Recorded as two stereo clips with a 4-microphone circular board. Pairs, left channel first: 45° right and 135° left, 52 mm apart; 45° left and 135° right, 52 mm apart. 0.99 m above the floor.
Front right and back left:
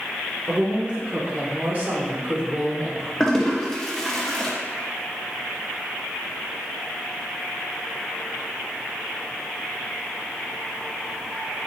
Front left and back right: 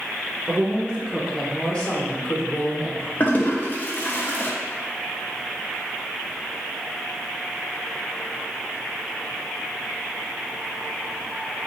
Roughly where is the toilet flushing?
Ahead left.